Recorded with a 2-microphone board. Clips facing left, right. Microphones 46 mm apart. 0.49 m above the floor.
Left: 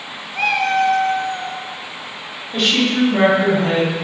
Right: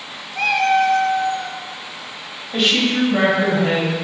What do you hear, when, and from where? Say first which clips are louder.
0.3 s a cat meowing: right 1 dB; 15° left (ahead or behind), 0.6 m
2.5 s a woman speaking: even; 10° right (ahead or behind), 1.1 m